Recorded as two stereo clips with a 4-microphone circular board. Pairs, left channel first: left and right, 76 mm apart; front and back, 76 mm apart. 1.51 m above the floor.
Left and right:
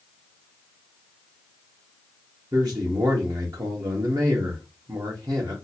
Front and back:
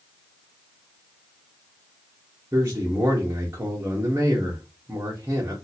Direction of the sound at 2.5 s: 125° right.